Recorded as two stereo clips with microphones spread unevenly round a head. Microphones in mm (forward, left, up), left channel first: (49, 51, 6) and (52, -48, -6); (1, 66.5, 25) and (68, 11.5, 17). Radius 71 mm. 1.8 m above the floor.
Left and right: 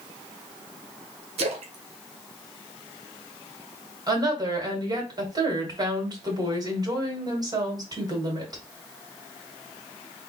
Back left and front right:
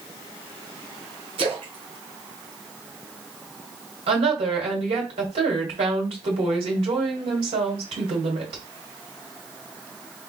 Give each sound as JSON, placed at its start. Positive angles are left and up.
{"t": 1.4, "sound": "a splash", "azimuth_deg": -90, "distance_m": 0.8}
{"t": 4.1, "sound": "a woman speaking", "azimuth_deg": -40, "distance_m": 2.0}